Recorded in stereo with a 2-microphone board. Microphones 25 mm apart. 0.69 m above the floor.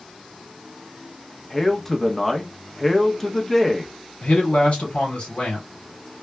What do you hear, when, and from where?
1.5 s a man speaking: 10° left (ahead or behind), 0.8 m
4.2 s a man speaking: 50° left (ahead or behind), 2 m